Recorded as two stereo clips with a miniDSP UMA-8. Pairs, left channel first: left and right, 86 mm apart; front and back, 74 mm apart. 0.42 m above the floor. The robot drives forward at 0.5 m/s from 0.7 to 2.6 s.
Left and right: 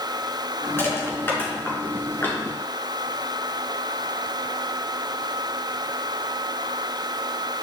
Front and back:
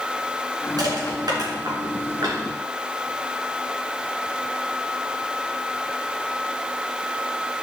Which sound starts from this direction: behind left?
Crushing, at 0.8 s.